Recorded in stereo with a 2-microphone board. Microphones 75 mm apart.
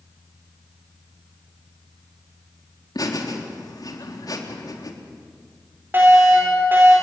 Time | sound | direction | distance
3.0 | laughter | 60° left (ahead or behind) | 3.5 m
5.9 | a fire alarm | 30° right (ahead or behind) | 8.5 m